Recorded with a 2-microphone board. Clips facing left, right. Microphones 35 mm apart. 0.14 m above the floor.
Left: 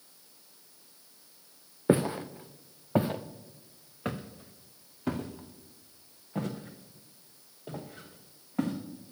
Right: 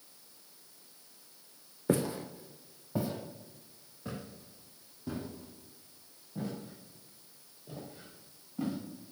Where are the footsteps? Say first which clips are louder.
Left 5 dB; 30° left (ahead or behind), 0.9 m; by 8.7 s 85° left, 4 m.